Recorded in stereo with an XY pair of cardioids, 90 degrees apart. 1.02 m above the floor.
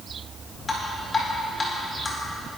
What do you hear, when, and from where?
0.7 s dripping: 35° left, 4 m